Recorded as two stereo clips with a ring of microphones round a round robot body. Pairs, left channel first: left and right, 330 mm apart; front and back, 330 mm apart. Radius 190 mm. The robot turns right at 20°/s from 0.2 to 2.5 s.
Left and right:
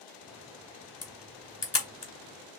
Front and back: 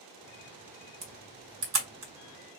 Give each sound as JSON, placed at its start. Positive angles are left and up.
{"t": 1.0, "sound": "a camera shutter", "azimuth_deg": 130, "distance_m": 1.9}